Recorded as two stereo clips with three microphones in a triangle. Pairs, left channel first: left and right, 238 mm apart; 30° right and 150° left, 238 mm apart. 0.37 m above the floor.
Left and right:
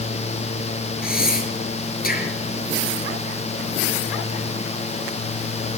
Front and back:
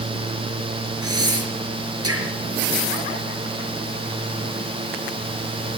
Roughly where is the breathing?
Behind left.